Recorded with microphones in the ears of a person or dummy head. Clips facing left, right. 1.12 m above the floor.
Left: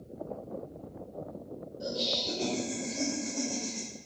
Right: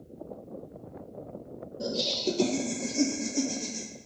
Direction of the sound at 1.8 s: 70° right (ahead or behind).